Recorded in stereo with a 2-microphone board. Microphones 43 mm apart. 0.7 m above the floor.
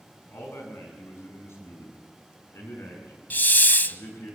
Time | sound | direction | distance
0.3 | a man speaking | 80° left | 7.5 m
3.3 | a hiss | 50° left (ahead or behind) | 0.7 m